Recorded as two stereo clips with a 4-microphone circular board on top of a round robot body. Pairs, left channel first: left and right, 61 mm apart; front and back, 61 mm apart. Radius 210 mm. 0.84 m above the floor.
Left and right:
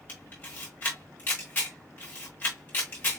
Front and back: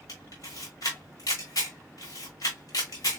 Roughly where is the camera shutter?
Ahead left.